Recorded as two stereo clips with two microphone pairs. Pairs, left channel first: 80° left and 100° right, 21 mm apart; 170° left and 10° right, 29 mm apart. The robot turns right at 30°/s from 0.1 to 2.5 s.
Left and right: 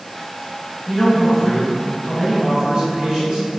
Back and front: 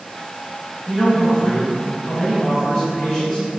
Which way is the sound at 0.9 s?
170° right.